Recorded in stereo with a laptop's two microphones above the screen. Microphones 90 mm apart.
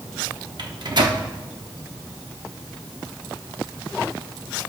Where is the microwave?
55° right (ahead or behind), 1.1 m.